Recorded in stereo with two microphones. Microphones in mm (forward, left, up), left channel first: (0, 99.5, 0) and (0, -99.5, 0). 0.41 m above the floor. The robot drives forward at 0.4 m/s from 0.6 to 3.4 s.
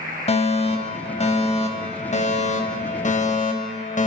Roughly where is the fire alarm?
Left.